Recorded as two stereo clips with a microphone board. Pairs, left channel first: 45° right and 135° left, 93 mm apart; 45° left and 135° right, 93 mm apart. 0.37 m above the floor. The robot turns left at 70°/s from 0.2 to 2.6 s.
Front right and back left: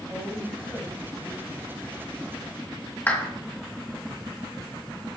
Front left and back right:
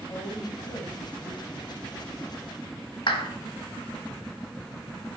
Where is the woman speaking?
80° left, 1.9 m; by 1.7 s 25° right, 1.9 m.